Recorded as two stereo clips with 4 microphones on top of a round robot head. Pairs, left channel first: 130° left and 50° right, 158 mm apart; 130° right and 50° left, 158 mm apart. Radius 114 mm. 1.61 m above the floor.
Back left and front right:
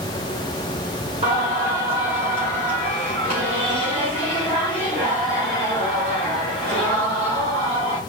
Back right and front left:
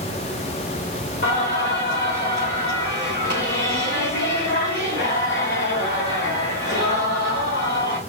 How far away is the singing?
About 2.5 m.